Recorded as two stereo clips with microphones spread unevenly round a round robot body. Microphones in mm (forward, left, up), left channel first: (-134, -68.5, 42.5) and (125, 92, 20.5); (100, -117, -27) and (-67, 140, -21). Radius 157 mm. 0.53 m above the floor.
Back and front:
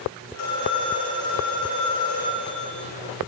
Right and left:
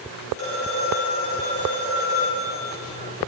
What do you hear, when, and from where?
0.3 s a phone ringing: straight behind, 5 m